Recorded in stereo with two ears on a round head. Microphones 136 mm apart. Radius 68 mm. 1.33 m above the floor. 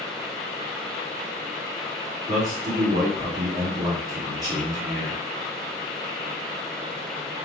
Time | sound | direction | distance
2.3 | a man speaking | 25° right (ahead or behind) | 1.3 m